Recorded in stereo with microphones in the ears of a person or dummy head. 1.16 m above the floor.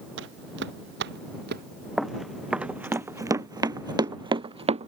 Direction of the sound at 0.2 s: 70° right (ahead or behind).